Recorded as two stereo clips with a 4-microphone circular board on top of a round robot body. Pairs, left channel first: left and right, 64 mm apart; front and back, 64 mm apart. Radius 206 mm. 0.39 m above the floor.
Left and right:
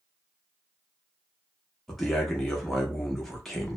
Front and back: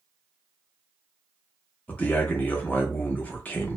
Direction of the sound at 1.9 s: 10° left.